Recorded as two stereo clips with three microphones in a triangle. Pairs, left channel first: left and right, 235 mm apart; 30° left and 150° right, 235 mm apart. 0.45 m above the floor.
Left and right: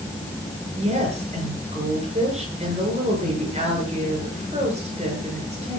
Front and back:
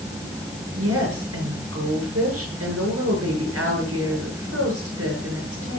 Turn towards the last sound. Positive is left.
turn(degrees=-155)